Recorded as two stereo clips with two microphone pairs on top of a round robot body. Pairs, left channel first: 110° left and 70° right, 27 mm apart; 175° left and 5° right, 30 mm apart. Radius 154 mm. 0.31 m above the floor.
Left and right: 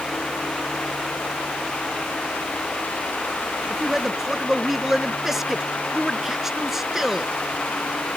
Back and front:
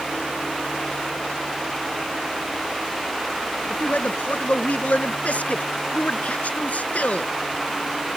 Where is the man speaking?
145° right.